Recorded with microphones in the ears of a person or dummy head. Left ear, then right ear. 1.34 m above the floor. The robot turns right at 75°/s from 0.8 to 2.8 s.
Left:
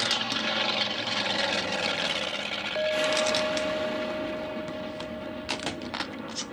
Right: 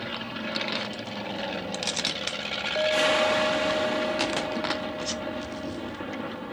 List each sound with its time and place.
0.0 s an aircraft: 45° left; by 6.5 s 165° right
2.8 s a clink: centre (ahead or behind)